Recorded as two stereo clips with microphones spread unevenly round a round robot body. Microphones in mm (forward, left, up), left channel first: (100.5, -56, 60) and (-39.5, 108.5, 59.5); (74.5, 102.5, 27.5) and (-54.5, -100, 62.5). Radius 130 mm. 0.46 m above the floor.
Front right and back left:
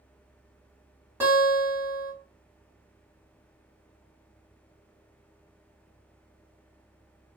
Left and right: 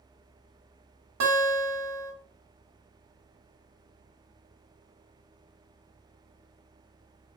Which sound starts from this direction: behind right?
A guitar, at 1.2 s.